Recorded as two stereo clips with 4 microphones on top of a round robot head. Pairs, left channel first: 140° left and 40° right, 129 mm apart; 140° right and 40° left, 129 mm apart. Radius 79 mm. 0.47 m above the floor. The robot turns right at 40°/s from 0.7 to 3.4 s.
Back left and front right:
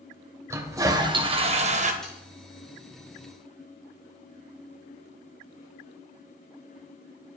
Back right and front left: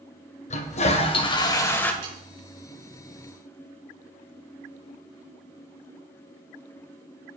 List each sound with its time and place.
0.5 s a toilet flushing: 110° right, 1.9 m; by 1.9 s 60° right, 1.9 m
2.0 s sawing: 50° left, 5.5 m; by 2.2 s 60° left, 5.5 m